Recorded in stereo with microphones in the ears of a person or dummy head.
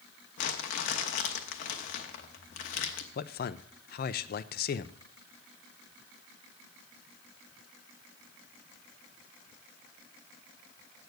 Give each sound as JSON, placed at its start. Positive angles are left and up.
{"t": 0.4, "sound": "crumpling", "side_deg": 45, "distance_m": 0.9}
{"t": 3.1, "sound": "a man speaking", "side_deg": 50, "distance_m": 0.5}